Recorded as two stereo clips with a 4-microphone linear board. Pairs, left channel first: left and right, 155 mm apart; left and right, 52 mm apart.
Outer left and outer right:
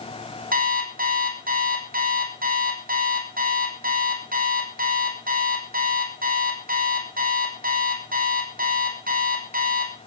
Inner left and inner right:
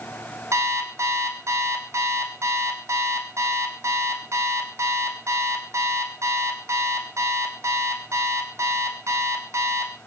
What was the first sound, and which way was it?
An alarm clock, 70° right (ahead or behind).